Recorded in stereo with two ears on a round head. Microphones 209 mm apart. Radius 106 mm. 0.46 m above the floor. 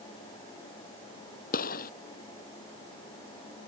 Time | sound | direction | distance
1.5 | a gunshot | 35° left (ahead or behind) | ?